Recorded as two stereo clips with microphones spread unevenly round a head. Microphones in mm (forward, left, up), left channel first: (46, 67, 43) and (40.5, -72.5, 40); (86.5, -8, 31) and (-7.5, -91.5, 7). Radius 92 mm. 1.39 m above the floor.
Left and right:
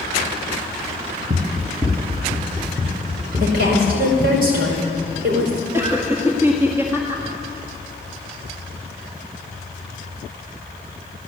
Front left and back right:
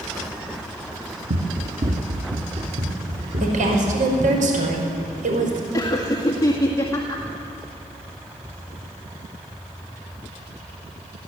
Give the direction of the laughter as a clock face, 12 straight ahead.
1 o'clock.